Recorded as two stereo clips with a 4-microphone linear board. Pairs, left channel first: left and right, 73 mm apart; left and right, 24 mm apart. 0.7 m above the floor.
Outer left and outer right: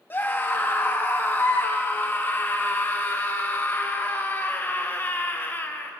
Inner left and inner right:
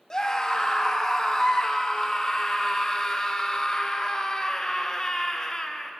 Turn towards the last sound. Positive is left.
turn(degrees=30)  # may be behind; listen again after turning